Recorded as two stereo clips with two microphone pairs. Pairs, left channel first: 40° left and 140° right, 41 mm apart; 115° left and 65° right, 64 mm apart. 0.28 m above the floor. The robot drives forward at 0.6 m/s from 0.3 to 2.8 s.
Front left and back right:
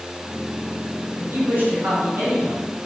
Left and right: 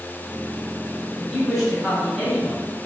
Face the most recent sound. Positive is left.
turn(degrees=-165)